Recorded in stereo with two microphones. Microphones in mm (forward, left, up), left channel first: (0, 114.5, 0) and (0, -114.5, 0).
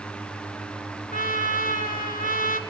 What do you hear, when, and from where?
1.1 s a trumpet: 35° left (ahead or behind), 2 m